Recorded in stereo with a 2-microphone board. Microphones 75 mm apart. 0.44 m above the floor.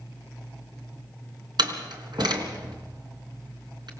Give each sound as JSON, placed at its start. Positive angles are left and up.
{"t": 1.6, "sound": "a door slam", "side_deg": -70, "distance_m": 3.5}